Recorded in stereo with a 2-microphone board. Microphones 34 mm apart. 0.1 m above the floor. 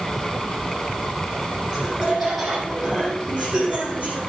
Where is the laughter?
40° right (ahead or behind), 4 m; by 4.2 s 45° right (ahead or behind), 3 m.